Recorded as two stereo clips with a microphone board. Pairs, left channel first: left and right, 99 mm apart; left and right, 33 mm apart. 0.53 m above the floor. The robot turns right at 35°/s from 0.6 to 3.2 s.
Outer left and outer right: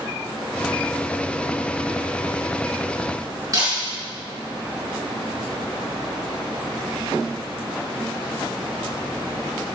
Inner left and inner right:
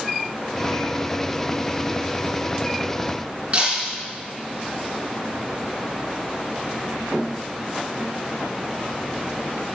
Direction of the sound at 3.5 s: 40° right (ahead or behind).